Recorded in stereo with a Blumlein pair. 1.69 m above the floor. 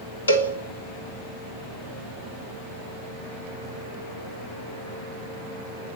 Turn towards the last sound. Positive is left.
turn(degrees=65)